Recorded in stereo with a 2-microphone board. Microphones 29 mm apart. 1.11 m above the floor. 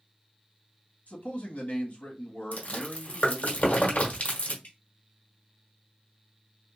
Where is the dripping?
65° left (ahead or behind), 1.2 m.